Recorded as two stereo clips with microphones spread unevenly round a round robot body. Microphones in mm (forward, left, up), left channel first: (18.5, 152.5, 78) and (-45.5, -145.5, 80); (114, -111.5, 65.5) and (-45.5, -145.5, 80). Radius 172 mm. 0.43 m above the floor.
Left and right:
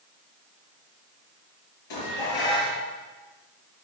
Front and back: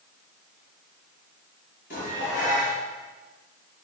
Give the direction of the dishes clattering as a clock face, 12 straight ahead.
10 o'clock.